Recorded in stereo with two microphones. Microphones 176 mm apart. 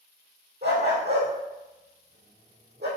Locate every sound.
0.6 s a dog barking: 90° right, 3.5 m